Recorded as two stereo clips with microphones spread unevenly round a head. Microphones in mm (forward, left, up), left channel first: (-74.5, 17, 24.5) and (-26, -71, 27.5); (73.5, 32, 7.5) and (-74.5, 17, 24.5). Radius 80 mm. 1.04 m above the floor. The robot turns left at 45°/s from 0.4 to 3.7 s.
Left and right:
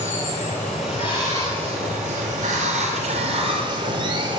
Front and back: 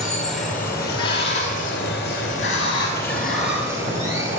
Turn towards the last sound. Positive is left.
turn(degrees=-100)